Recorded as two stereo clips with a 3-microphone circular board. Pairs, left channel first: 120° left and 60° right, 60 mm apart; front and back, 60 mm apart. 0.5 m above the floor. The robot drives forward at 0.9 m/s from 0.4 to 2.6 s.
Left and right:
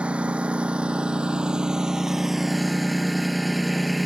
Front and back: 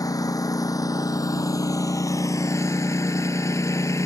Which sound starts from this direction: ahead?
A lawn mower, at 0.0 s.